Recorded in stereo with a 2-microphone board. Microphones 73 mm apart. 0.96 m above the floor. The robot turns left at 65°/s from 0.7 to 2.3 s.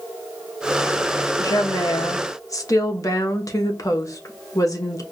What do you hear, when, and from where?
1.4 s a woman speaking: 115° left, 1.0 m; by 5.0 s 55° left, 1.0 m